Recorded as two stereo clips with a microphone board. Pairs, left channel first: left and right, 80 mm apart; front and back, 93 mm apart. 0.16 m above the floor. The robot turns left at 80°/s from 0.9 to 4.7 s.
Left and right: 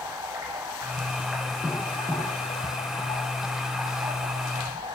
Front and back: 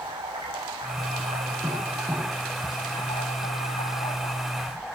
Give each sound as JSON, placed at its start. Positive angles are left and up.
{"t": 0.0, "sound": "running water", "azimuth_deg": -145, "distance_m": 3.5}